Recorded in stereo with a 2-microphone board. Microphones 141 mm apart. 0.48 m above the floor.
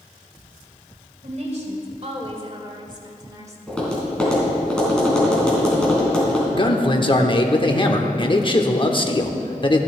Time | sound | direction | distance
1.2 | a woman speaking | 55° right (ahead or behind) | 2 m
3.7 | tapping | 5° left (ahead or behind) | 3.5 m
6.5 | a man speaking | 35° left (ahead or behind) | 0.9 m